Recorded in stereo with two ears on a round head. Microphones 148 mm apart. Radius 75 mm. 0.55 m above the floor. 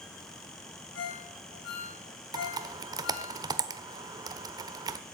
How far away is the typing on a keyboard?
About 1.0 m.